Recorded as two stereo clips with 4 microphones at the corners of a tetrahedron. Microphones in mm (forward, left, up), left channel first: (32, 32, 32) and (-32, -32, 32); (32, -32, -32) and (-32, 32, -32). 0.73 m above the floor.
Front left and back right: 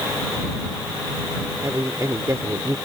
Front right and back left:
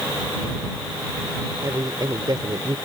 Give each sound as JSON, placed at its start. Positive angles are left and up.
{"t": 1.6, "sound": "a man speaking", "azimuth_deg": 175}